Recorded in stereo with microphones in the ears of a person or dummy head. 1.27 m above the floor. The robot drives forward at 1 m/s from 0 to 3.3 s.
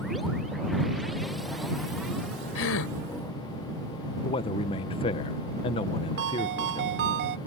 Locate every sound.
2.5 s a gasp: 80° left
4.2 s a man speaking: 25° left (ahead or behind)
6.2 s a ringtone: 55° right (ahead or behind)